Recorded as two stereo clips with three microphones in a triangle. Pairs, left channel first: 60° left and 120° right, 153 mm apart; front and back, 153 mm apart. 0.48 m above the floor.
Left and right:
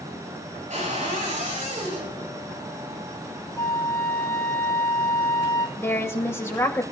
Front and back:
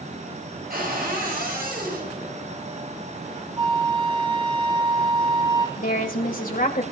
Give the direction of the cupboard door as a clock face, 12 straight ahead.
5 o'clock.